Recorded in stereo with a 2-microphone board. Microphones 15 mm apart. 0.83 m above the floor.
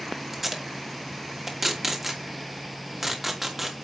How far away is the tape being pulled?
About 2.5 m.